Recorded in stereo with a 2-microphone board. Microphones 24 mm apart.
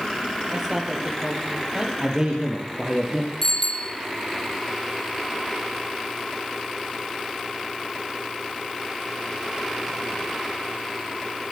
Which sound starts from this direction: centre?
A bicycle bell, at 3.4 s.